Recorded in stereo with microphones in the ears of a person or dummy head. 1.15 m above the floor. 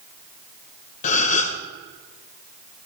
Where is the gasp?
45° left (ahead or behind), 1.6 m.